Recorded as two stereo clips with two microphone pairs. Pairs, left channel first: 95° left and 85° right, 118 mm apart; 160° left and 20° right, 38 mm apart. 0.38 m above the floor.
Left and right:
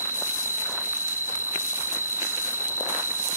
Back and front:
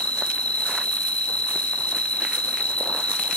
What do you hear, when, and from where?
0.0 s an insect: 150° right, 0.9 m